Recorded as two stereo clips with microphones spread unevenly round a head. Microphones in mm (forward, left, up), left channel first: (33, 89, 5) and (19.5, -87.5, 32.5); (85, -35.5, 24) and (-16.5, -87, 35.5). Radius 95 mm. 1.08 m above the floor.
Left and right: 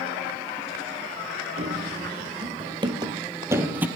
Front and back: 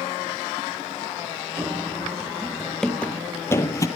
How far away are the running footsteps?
About 1.4 m.